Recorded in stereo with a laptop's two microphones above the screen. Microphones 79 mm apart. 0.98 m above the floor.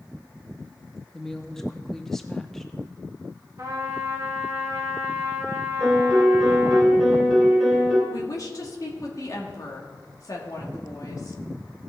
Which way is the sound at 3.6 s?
45° right (ahead or behind).